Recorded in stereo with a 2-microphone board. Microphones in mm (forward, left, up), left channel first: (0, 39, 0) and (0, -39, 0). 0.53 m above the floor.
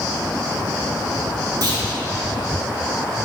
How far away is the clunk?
About 2 m.